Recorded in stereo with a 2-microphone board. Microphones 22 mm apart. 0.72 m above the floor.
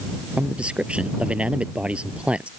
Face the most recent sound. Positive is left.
turn(degrees=-60)  # may be behind; listen again after turning